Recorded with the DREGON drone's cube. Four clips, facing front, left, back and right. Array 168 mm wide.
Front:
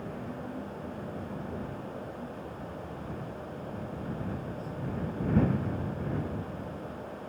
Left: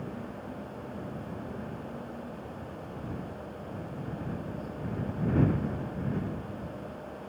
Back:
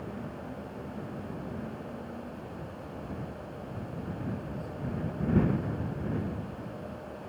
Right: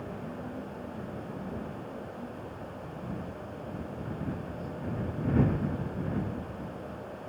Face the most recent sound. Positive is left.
No sound to turn to.